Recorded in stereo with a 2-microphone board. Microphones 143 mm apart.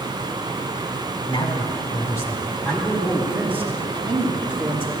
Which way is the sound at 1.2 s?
35° left (ahead or behind).